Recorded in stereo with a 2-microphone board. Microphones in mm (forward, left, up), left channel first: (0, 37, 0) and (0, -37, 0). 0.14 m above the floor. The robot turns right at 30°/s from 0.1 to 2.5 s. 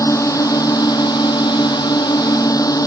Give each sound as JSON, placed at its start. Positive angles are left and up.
{"t": 0.0, "sound": "a drone", "azimuth_deg": 50}